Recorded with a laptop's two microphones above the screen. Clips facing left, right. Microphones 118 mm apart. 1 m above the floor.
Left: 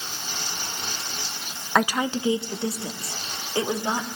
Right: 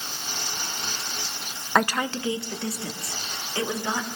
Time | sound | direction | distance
1.8 | a woman speaking | 5° left (ahead or behind) | 0.6 m